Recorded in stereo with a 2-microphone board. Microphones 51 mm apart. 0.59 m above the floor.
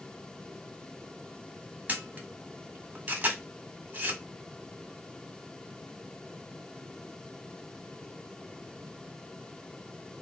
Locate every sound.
1.9 s a camera shutter: 30° right (ahead or behind), 1.0 m